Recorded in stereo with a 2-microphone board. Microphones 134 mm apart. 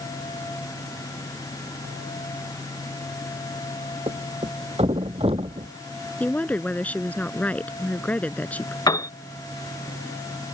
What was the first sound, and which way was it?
A thud, 45° right (ahead or behind).